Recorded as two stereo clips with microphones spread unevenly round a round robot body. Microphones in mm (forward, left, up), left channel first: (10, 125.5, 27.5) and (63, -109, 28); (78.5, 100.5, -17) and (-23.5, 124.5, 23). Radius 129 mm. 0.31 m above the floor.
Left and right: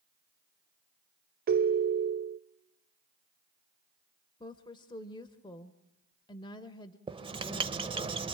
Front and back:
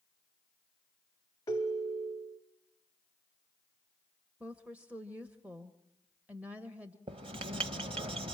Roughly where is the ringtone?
Ahead right.